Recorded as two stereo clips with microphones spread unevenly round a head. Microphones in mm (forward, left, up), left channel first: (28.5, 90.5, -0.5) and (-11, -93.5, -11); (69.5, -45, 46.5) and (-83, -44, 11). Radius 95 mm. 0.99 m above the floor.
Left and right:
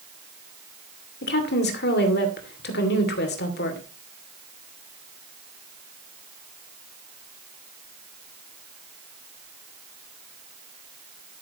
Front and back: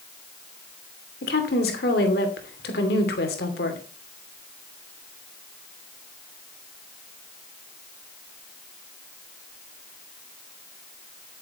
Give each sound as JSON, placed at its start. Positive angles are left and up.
{"t": 1.2, "sound": "a woman speaking", "azimuth_deg": 40, "distance_m": 2.5}